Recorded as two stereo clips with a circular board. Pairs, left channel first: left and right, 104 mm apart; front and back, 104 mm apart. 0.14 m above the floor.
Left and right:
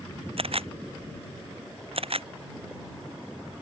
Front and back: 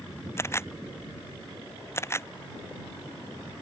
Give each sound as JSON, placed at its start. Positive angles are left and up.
{"t": 0.4, "sound": "a camera shutter", "azimuth_deg": -65}